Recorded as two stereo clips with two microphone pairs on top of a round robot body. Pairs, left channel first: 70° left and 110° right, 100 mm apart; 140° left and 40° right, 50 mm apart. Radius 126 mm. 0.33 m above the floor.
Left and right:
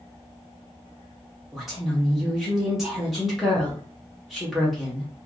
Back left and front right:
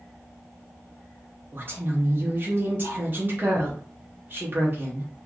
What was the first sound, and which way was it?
A woman speaking, 25° right.